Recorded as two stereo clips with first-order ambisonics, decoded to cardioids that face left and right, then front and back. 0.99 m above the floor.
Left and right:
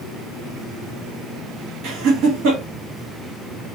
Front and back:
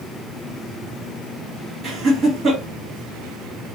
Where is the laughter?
115° right, 2 m.